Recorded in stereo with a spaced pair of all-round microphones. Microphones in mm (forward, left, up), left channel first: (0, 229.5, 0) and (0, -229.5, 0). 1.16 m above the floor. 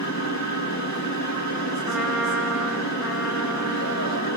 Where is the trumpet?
Centre (ahead or behind), 1.5 m.